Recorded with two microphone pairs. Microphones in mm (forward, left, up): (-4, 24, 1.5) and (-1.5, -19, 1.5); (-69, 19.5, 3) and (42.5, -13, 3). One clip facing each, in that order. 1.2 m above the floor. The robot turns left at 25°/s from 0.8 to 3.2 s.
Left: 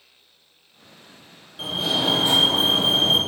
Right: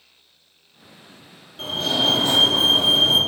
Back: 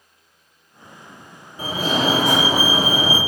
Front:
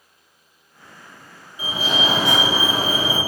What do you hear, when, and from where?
1.6 s a fire alarm: 170° left, 1.7 m; by 3.2 s 130° left, 1.7 m